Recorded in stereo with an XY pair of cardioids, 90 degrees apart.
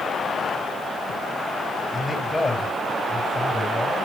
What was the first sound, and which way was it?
A man speaking, 20° left.